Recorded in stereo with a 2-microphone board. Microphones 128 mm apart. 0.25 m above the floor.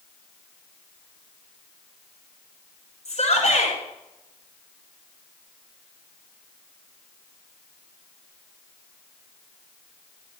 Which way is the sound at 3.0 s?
60° left (ahead or behind).